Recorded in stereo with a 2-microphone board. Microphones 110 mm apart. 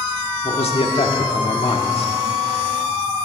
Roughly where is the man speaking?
Left.